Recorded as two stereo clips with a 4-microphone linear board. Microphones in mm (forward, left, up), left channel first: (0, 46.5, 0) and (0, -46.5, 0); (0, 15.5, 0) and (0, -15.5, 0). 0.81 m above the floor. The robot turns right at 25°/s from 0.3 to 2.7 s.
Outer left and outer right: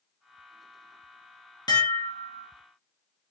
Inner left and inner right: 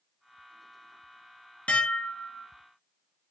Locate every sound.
1.7 s dishes clattering: 45° left (ahead or behind), 0.5 m; by 2.5 s 30° left (ahead or behind), 0.5 m